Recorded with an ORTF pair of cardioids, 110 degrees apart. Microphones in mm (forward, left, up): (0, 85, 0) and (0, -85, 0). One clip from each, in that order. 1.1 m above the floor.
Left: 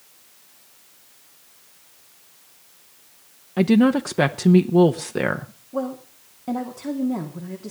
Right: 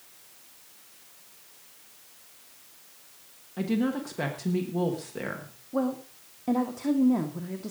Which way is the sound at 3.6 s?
60° left.